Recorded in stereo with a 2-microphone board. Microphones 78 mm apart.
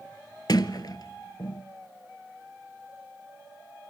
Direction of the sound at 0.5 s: 60° left (ahead or behind).